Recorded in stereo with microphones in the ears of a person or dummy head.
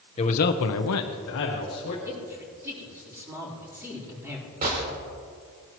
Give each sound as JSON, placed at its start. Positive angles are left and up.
{"t": 0.2, "sound": "a man speaking", "side_deg": 25, "distance_m": 1.1}
{"t": 2.0, "sound": "a man speaking", "side_deg": -20, "distance_m": 4.0}
{"t": 4.6, "sound": "a gunshot", "side_deg": -55, "distance_m": 3.0}